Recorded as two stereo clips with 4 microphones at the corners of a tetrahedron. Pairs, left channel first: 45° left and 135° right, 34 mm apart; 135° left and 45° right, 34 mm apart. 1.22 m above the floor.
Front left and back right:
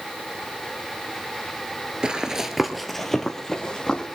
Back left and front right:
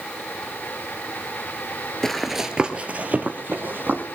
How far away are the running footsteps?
About 1.3 m.